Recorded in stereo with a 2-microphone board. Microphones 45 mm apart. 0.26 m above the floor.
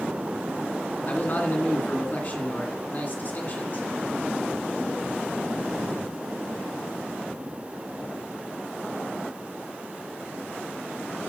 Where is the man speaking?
45° left (ahead or behind), 2 m.